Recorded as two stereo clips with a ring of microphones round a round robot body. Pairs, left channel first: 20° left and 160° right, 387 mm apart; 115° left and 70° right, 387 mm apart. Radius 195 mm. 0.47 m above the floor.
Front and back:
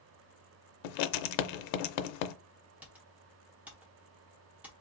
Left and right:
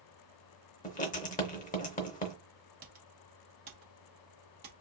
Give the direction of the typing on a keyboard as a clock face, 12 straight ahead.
3 o'clock.